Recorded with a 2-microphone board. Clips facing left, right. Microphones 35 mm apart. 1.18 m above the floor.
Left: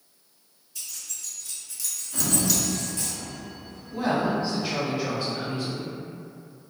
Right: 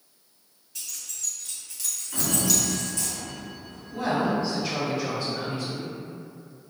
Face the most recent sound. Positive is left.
turn(degrees=10)  # may be behind; listen again after turning